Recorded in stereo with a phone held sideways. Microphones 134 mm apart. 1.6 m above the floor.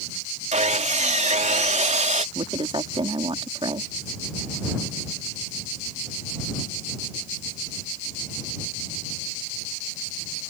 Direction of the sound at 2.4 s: 40° right (ahead or behind).